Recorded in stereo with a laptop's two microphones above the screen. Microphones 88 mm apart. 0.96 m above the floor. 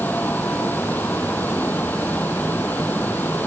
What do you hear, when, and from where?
0.0 s a fan: 20° left (ahead or behind)